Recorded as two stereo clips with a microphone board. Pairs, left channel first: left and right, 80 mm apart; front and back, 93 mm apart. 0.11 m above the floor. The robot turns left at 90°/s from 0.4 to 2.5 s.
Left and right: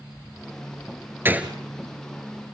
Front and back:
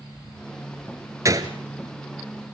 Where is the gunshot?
140° right, 1.3 m; by 1.5 s 165° right, 1.3 m.